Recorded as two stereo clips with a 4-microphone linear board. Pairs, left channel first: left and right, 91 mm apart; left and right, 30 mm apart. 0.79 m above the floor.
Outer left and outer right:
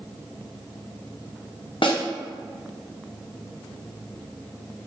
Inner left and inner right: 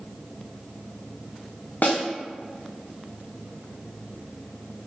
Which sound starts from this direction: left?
A snare drum, at 1.8 s.